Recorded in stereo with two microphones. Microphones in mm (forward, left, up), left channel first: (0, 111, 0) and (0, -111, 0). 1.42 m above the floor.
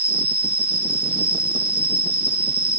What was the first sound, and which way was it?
An insect, 30° left (ahead or behind).